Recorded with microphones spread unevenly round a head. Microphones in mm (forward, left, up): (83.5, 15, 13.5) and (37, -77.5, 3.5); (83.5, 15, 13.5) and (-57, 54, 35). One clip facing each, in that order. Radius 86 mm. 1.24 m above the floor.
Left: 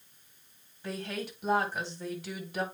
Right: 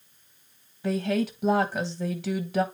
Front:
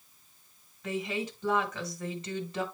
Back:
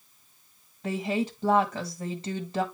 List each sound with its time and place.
0.8 s a woman speaking: 130° right, 1.3 m